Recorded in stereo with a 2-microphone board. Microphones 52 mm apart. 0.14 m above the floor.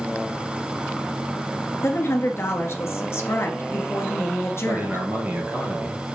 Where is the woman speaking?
55° left (ahead or behind), 1.7 m.